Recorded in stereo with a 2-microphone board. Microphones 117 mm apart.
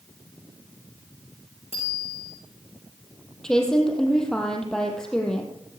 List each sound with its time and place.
1.7 s a bicycle bell: 55° left (ahead or behind), 5.5 m
3.4 s a woman speaking: 5° left (ahead or behind), 3.5 m